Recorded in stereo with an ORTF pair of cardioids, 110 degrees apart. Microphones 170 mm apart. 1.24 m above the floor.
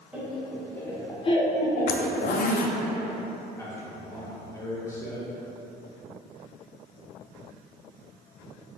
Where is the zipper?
55° left, 0.5 m.